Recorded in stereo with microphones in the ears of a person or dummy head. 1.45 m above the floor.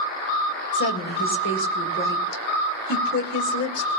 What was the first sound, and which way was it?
A woman speaking, 60° left (ahead or behind).